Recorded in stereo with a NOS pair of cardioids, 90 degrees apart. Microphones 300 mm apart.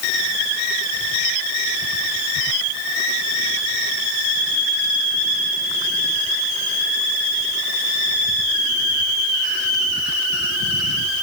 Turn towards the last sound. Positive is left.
No sound to turn to.